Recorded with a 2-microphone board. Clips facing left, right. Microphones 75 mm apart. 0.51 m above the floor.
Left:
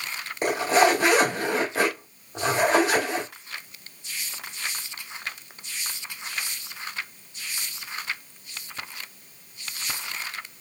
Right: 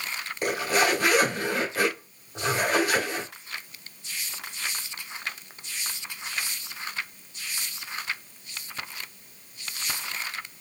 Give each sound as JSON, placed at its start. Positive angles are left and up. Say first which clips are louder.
{"t": 0.4, "sound": "a zipper", "louder": "left 5 dB", "side_deg": 30, "distance_m": 2.0}